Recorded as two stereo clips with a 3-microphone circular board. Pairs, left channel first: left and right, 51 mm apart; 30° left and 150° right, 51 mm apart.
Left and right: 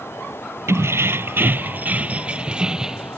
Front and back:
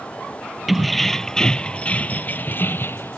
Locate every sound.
0.7 s keys jangling: 65° right; by 3.2 s 10° right